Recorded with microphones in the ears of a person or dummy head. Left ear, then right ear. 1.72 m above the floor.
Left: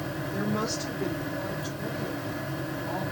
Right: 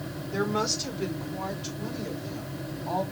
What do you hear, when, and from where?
0.3 s a woman speaking: 35° right (ahead or behind), 1.8 m; by 3.0 s 40° right (ahead or behind), 3.5 m